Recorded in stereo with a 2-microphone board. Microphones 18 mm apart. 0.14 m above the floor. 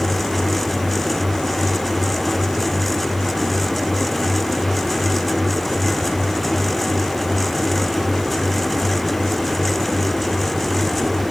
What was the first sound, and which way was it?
Only background noise.